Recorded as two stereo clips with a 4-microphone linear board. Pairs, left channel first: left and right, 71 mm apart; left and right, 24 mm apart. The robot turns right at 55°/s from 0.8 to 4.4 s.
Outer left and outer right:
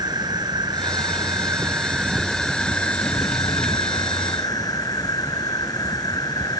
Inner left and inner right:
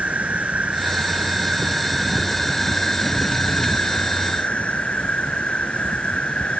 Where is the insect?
85° right; by 6.6 s 115° left.